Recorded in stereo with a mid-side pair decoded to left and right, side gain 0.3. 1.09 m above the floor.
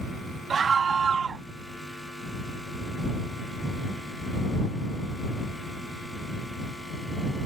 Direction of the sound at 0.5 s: 65° right.